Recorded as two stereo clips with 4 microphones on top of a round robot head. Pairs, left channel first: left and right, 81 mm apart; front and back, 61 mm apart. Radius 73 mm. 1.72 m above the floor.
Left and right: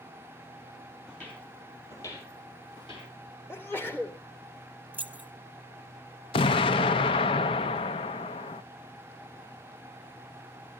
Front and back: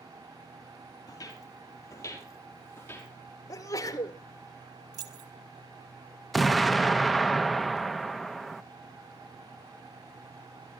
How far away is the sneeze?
About 2.5 m.